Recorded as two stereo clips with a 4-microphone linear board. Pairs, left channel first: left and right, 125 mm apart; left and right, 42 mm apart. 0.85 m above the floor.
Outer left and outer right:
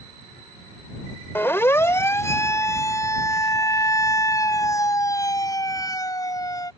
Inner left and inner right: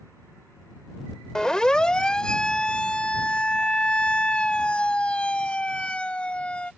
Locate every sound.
1.4 s a siren: 20° left (ahead or behind); by 6.7 s 30° left (ahead or behind)